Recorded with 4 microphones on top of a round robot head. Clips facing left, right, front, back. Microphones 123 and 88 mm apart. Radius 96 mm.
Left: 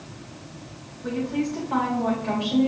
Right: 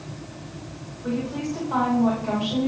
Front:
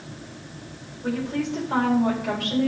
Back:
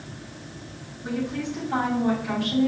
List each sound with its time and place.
1.0 s a woman speaking: 5° left, 3.5 m